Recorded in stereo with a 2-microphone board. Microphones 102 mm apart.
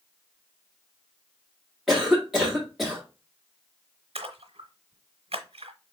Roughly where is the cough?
Centre.